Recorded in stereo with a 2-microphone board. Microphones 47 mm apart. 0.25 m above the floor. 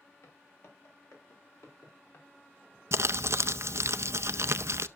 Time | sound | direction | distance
0.2 | footsteps | 80° left | 6.5 m
2.9 | crumpling | 65° right (ahead or behind) | 0.5 m